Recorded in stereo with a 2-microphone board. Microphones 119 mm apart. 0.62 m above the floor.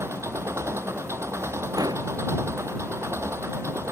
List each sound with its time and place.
0.0 s an engine running: 25° right (ahead or behind)
1.8 s an explosion: 30° right (ahead or behind)